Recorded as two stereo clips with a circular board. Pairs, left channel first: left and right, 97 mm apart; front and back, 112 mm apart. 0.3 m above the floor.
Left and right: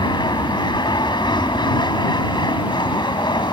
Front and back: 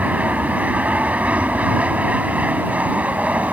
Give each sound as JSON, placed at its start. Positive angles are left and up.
{"t": 0.0, "sound": "an aircraft", "azimuth_deg": 105}